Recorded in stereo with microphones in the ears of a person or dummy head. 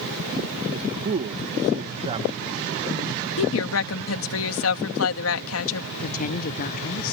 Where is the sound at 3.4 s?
80° left.